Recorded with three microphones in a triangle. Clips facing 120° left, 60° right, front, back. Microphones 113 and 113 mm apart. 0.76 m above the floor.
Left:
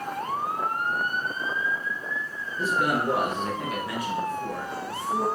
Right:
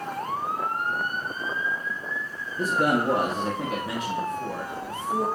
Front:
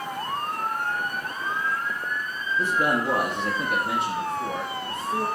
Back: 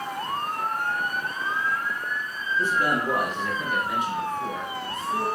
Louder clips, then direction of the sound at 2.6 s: Right 2 dB, front 1 dB; 70° right.